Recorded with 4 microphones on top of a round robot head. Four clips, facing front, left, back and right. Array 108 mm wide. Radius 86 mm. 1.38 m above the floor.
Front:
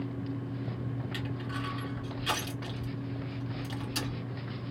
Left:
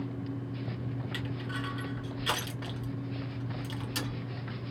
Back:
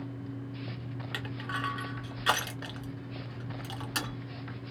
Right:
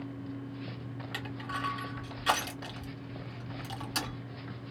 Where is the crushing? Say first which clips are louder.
Right 3 dB, even; 160° right, 1.8 m.